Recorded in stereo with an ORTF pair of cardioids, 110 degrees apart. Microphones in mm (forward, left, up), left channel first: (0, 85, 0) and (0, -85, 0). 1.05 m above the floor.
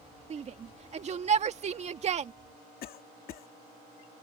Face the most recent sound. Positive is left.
turn(degrees=60)